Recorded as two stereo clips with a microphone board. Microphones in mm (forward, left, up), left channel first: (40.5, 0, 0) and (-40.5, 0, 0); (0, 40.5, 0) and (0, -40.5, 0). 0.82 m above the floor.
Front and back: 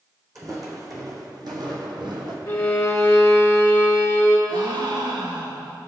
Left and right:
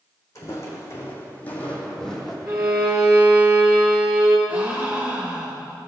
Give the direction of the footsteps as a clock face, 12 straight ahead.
7 o'clock.